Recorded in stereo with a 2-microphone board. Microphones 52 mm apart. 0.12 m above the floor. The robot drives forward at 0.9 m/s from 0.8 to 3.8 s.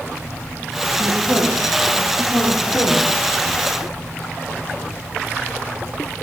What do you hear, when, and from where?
1.0 s a woman speaking: 45° left (ahead or behind), 5 m; by 3.1 s 65° left (ahead or behind), 4 m